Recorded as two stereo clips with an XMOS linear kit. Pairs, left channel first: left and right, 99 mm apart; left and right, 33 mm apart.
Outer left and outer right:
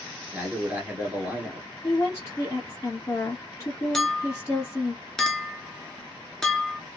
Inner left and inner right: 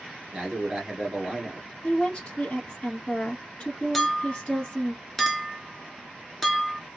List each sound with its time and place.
0.3 s a man speaking: 20° right (ahead or behind), 1.5 m
1.8 s a woman speaking: 30° left (ahead or behind), 1.2 m
3.9 s a clink: 5° left (ahead or behind), 0.7 m